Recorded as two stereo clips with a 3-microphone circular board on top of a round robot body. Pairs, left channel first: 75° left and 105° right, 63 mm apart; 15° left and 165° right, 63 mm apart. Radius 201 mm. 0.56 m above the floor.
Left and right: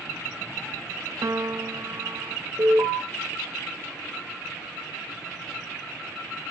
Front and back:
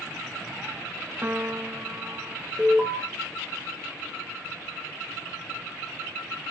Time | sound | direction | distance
1.2 | a piano | 115° right | 0.8 m
2.6 | an alarm | 90° right | 3.5 m